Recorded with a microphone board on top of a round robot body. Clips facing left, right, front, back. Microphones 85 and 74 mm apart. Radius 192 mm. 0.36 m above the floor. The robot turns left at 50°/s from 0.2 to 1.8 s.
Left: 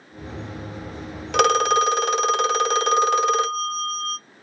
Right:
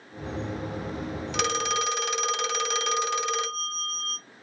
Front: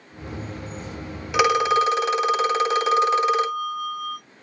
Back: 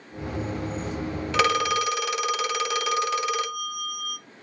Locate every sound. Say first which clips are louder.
1.3 s a phone ringing: left 11 dB, front 5 dB; 75° left, 0.5 m; by 4.2 s 50° left, 0.5 m